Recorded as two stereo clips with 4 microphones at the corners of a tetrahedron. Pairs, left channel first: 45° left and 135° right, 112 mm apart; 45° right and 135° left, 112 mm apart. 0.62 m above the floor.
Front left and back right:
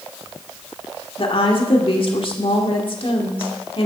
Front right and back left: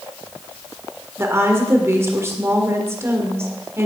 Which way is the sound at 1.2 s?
70° left.